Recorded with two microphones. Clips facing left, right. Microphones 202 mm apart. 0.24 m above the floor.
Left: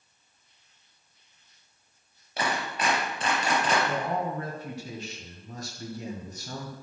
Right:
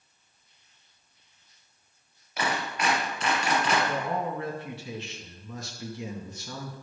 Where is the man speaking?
45° left (ahead or behind), 2 m.